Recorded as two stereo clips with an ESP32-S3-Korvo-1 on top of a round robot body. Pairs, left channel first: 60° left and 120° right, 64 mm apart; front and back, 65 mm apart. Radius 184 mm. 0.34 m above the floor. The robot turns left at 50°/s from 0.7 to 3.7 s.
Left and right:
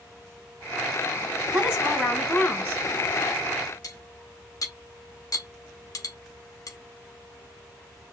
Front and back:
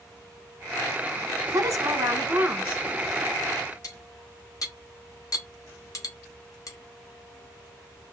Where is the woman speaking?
165° left, 2.5 m; by 2.8 s 100° left, 2.5 m.